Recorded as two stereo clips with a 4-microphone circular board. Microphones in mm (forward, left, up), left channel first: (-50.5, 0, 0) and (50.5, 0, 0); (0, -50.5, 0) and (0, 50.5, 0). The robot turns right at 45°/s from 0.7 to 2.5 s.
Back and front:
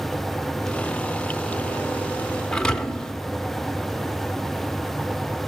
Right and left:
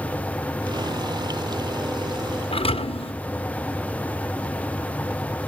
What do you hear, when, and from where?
2.5 s a thud: 100° right, 0.6 m